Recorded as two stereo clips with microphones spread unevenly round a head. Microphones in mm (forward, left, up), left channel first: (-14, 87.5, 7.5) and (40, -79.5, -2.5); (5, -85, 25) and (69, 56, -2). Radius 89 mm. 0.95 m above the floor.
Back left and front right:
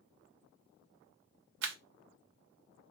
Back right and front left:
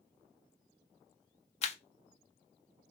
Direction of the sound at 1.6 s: 65° right.